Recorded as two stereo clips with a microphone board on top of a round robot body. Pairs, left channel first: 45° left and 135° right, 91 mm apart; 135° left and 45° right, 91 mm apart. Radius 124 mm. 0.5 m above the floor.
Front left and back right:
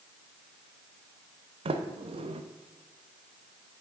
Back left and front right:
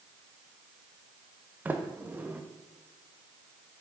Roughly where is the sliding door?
Behind right.